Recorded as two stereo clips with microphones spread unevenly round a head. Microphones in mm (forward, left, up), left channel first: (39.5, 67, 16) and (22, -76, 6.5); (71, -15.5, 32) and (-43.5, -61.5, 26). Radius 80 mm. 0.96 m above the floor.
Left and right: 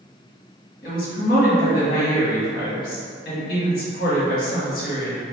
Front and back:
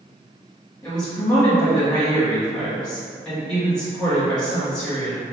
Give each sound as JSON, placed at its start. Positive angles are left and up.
{"t": 0.8, "sound": "a woman speaking", "azimuth_deg": 105, "distance_m": 1.2}